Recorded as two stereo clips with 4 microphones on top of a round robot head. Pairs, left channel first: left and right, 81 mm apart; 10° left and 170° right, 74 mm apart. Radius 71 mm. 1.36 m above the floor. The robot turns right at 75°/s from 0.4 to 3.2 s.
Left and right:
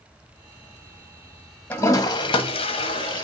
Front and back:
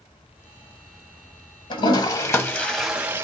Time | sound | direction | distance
1.7 | a toilet flushing | 20° left | 1.1 m